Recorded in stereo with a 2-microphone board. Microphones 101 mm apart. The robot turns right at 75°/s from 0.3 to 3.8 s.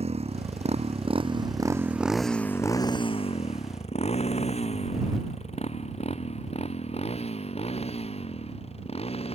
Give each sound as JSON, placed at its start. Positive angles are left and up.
{"t": 0.0, "sound": "a motorcycle", "side_deg": -80}